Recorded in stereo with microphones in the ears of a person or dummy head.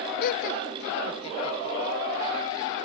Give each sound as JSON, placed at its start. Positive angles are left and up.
{"t": 0.2, "sound": "laughter", "side_deg": 60}